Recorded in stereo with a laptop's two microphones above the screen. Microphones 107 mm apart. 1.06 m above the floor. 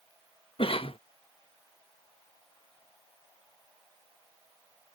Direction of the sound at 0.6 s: 55° left (ahead or behind).